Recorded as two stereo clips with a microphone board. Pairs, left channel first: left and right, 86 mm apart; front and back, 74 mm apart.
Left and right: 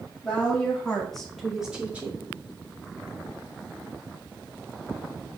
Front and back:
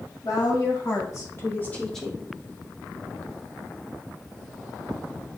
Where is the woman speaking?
15° left, 2 m; by 2.3 s 125° right, 1.0 m.